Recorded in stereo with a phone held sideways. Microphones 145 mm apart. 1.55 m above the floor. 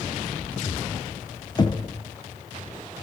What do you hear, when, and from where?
1.6 s knocking: 30° left (ahead or behind), 0.6 m